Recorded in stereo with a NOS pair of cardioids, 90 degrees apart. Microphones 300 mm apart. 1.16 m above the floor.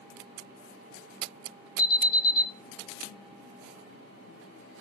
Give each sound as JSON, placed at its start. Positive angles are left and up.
{"t": 1.8, "sound": "an alarm", "azimuth_deg": 30, "distance_m": 1.5}